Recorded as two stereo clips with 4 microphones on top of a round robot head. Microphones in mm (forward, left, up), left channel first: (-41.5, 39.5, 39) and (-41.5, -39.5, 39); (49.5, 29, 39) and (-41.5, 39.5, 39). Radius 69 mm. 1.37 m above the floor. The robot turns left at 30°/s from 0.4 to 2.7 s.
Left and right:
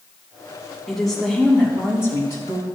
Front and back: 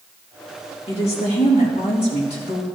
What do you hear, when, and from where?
0.9 s a woman speaking: 5° left, 2.5 m; by 2.6 s 50° right, 2.5 m